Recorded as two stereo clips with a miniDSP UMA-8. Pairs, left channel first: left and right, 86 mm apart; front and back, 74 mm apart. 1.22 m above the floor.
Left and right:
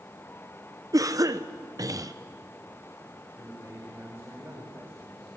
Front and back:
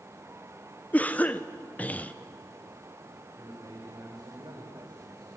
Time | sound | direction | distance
0.9 | a cough | 65° right | 0.8 m
3.4 | a man speaking | 155° right | 4.5 m